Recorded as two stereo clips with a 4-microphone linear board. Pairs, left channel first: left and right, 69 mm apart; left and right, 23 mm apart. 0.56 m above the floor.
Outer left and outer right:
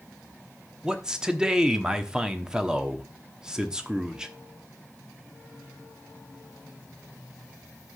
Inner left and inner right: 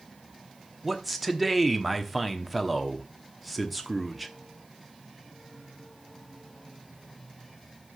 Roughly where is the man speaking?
Centre.